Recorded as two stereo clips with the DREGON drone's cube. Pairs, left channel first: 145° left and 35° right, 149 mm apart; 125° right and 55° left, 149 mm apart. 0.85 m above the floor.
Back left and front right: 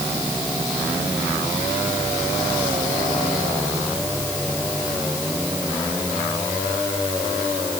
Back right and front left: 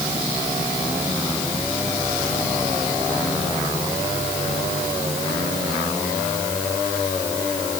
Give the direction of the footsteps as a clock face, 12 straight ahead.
No footsteps in this recording.